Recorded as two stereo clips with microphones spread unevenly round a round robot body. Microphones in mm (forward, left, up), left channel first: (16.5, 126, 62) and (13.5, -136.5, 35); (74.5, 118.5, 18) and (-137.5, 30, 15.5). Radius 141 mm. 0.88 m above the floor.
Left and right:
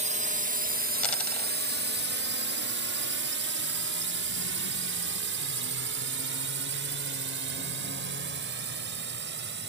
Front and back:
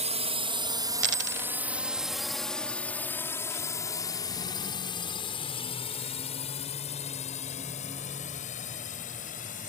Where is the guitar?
I don't hear a guitar.